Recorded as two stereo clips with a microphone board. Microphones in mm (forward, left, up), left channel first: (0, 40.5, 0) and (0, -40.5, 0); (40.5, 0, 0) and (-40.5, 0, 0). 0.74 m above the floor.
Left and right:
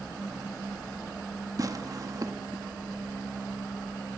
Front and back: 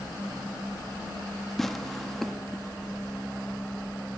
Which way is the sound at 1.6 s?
85° right.